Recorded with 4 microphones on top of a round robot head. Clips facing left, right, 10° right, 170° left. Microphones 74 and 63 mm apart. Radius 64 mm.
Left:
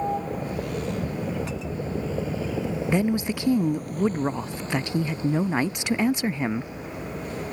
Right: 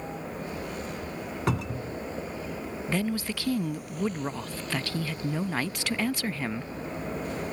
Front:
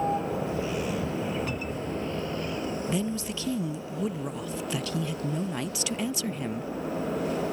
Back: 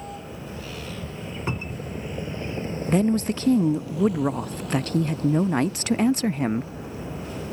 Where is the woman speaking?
155° left.